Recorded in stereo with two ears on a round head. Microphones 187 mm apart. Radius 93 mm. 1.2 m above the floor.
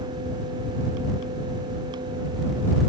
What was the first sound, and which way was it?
Only background noise.